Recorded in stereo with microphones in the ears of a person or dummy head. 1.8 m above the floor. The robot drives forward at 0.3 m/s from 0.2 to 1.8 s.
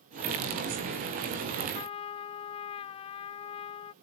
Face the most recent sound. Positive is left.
turn(degrees=30)  # may be behind; listen again after turning